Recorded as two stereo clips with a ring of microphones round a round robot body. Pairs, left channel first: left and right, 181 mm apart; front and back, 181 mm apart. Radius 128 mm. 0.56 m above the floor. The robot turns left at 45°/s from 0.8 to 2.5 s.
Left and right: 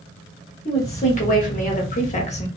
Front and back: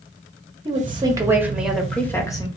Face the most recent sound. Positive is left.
turn(degrees=55)